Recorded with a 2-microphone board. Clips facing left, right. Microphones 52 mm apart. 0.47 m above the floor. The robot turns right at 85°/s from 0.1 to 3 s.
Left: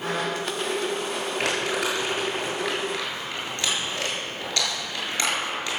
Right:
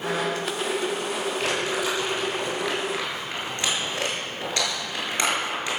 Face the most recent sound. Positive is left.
turn(degrees=-20)  # may be behind; listen again after turning